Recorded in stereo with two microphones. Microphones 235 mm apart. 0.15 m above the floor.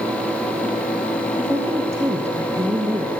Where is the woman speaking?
10° right (ahead or behind), 2 m.